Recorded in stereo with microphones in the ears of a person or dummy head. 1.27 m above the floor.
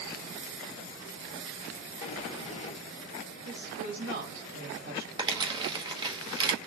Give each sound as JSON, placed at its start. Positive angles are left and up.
{"t": 2.0, "sound": "a sliding door", "side_deg": 35, "distance_m": 1.7}
{"t": 3.5, "sound": "a woman speaking", "side_deg": -50, "distance_m": 2.5}
{"t": 5.2, "sound": "crumpling", "side_deg": -20, "distance_m": 1.1}